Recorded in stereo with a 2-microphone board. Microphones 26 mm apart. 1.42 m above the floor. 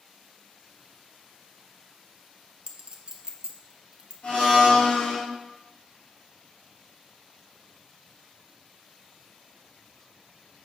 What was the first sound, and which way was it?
A clink, 35° right (ahead or behind).